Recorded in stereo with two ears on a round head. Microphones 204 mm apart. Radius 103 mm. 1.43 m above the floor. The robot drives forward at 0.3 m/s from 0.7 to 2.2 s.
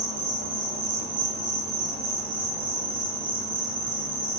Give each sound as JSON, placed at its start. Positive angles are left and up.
{"t": 0.0, "sound": "an insect", "side_deg": -50, "distance_m": 1.3}